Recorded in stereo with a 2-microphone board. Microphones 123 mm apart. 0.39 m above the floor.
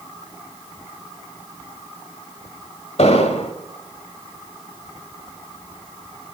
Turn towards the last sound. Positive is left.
turn(degrees=60)  # may be behind; listen again after turning